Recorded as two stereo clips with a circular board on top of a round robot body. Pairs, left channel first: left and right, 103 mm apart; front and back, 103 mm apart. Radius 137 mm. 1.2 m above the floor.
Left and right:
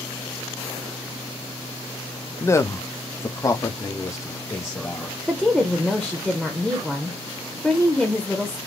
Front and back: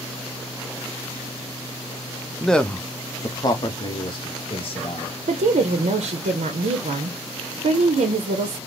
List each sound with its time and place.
2.4 s a man speaking: 90° left, 0.6 m; by 5.2 s 25° left, 1.7 m
5.3 s a woman speaking: 175° right, 0.7 m